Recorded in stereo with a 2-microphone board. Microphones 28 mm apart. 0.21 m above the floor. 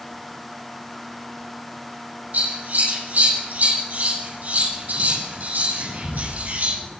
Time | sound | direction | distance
2.3 | scissors | 70° right (ahead or behind) | 8.5 m